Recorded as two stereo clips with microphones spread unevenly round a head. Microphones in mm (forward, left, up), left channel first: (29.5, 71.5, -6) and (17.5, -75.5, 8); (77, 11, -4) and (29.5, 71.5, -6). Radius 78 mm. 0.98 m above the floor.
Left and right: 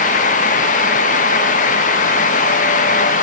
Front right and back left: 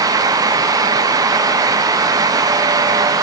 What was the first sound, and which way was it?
Only background noise.